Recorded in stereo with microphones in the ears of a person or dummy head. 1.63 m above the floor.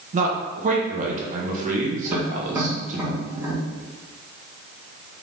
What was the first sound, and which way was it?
A man speaking, 50° right (ahead or behind).